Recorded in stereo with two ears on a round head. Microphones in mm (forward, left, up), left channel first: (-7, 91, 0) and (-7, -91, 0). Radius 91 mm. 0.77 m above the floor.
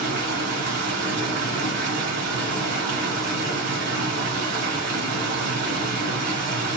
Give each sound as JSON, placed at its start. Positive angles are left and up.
{"t": 0.0, "sound": "running water", "side_deg": -65, "distance_m": 2.5}